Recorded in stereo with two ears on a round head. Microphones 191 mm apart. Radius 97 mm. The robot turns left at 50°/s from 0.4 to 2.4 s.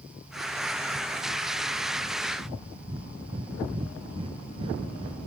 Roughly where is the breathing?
Right.